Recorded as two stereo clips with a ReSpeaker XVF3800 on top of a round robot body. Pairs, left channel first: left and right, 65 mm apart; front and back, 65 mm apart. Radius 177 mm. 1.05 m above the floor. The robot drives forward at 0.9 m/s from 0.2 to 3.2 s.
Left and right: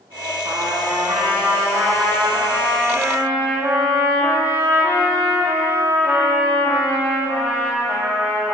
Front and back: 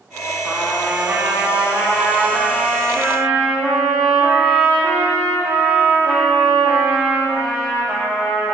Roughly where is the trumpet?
Right.